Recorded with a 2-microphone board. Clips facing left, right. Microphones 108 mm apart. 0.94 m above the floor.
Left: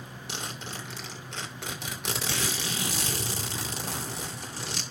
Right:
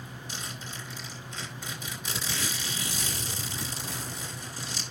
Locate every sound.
0.3 s a zipper: 75° left (ahead or behind), 2 m